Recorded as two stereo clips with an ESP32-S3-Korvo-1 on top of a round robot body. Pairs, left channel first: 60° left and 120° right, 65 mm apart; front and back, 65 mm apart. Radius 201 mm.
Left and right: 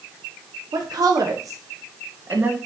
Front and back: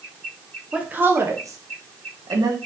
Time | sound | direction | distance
0.7 | a woman speaking | 110° right | 1.8 m